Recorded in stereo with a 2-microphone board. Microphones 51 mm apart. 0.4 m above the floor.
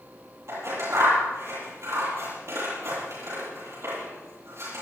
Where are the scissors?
65° right (ahead or behind), 9.5 m.